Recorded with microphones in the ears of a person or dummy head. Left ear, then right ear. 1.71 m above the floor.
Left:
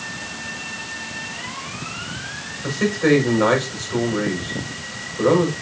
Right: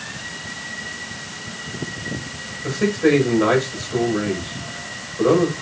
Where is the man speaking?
50° left (ahead or behind), 6 m.